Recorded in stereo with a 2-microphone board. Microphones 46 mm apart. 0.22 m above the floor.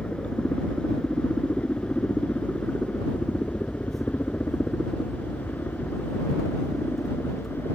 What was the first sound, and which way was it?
A helicopter, 30° left (ahead or behind).